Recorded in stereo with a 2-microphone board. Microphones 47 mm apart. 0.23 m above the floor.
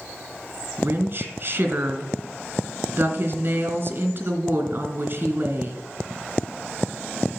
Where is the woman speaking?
45° right (ahead or behind), 2.5 m.